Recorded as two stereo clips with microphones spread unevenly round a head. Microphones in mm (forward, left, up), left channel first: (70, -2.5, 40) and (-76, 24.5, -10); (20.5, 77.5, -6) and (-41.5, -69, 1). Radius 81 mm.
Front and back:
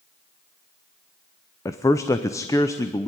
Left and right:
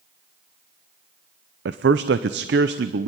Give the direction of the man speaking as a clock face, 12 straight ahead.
3 o'clock.